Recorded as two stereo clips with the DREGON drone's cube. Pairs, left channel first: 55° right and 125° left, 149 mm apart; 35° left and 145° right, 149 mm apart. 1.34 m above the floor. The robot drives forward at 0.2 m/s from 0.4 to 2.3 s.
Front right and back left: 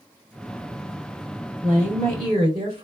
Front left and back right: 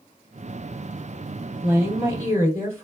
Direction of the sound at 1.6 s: 140° left.